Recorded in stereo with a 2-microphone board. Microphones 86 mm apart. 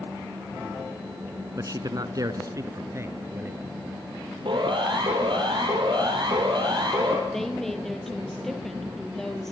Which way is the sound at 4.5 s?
70° right (ahead or behind).